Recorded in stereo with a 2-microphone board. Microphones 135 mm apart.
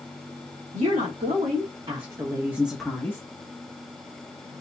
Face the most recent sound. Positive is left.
turn(degrees=20)  # may be behind; listen again after turning